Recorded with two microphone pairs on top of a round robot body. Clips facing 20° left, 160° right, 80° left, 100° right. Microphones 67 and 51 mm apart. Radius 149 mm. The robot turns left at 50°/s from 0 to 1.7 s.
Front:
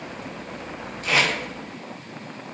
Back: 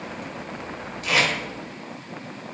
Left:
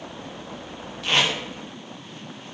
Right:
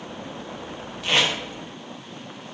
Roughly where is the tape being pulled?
Ahead.